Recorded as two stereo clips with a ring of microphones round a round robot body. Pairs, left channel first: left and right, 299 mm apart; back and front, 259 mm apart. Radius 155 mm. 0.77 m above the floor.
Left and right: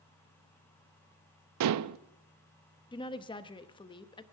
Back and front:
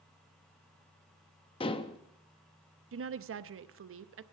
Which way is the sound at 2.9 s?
20° left.